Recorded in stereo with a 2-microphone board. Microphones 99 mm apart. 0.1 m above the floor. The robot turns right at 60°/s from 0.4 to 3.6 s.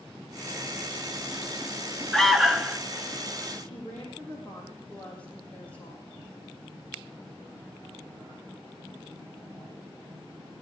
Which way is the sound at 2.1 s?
5° left (ahead or behind).